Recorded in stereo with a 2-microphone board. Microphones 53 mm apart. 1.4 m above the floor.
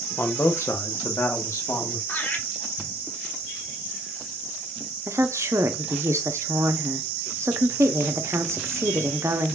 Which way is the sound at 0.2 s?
50° left (ahead or behind).